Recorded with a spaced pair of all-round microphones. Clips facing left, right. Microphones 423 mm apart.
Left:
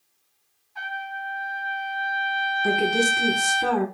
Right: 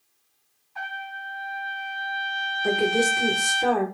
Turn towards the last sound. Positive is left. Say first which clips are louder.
# right 1 dB
turn(degrees=20)  # may be behind; listen again after turning